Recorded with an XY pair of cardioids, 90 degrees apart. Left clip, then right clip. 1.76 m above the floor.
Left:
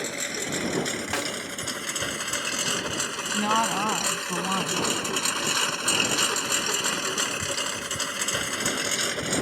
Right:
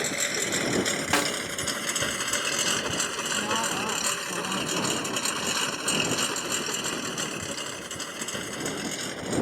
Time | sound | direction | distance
0.0 | a lawn mower | 20° right | ?
1.1 | a snare drum | 40° right | ?
3.3 | a woman speaking | 60° left | ?